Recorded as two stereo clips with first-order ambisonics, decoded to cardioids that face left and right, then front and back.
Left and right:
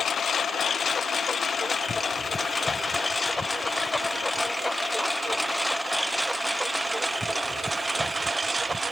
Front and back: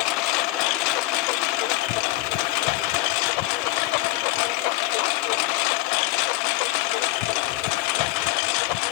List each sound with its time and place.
0.0 s a lawn mower: 20° left; by 8.9 s 10° right